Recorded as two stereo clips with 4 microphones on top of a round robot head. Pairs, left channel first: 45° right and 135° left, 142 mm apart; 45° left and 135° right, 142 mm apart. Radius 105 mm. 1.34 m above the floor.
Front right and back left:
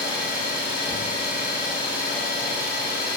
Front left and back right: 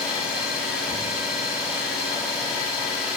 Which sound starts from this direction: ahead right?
An engine running, at 0.0 s.